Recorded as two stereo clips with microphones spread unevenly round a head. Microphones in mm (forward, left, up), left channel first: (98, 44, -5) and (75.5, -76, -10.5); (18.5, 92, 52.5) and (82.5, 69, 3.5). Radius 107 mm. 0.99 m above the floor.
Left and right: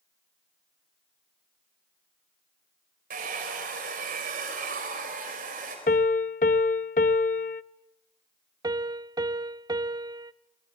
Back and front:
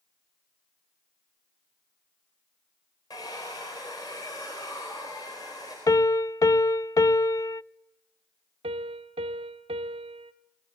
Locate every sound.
3.1 s a hair dryer: 130° right, 4.5 m
5.9 s a piano: 120° left, 0.5 m
8.6 s a piano: 50° right, 0.7 m